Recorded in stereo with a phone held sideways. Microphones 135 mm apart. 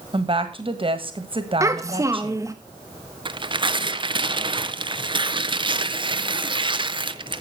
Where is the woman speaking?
40° right (ahead or behind), 1.5 m.